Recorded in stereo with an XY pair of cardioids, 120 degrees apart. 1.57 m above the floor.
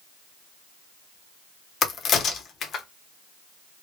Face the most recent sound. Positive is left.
turn(degrees=50)